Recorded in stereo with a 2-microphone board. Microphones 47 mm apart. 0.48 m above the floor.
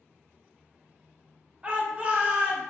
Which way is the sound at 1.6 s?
25° right (ahead or behind).